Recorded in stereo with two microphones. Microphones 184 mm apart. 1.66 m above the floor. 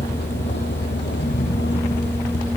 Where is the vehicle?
85° left; by 2.6 s 75° left (ahead or behind).